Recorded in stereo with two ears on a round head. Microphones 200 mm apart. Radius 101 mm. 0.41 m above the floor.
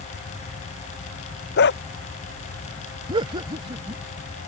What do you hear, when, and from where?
1.6 s a dog barking: 50° left (ahead or behind)
3.1 s laughter: 25° right (ahead or behind)